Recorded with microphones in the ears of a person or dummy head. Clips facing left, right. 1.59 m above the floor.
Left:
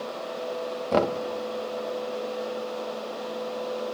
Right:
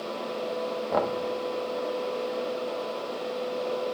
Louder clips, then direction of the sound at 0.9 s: Left 4 dB; 40° left (ahead or behind).